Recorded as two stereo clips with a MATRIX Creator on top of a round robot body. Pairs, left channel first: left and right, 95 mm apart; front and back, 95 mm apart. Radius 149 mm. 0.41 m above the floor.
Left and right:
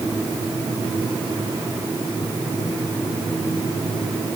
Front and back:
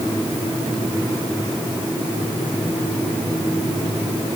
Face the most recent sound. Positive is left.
No sound to turn to.